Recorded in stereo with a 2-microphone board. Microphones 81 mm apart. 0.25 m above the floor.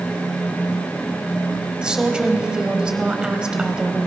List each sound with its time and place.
1.8 s a woman speaking: 10° right (ahead or behind), 1.1 m